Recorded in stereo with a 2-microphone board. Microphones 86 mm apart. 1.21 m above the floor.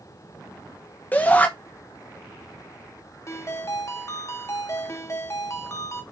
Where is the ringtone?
35° left (ahead or behind), 1.2 m.